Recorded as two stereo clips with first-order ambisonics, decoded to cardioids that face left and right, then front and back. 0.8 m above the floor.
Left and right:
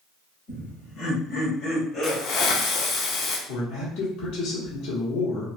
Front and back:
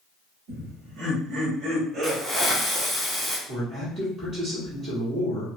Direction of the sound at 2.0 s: 95° left.